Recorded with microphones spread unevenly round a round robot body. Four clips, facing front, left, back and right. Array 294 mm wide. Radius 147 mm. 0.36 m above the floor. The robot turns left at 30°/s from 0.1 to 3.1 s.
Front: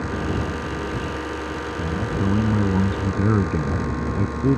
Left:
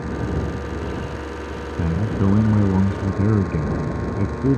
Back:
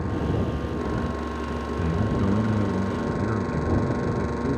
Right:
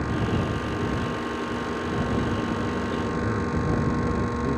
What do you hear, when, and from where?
1.8 s a man speaking: 90° left; by 4.6 s 50° left